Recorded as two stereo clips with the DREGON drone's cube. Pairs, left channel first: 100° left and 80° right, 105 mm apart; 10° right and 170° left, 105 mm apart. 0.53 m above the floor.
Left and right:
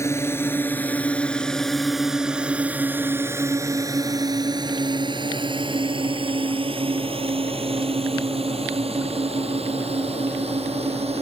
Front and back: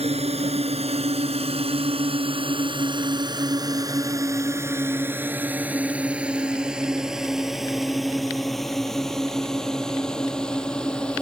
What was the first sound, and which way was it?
A drone, 165° left.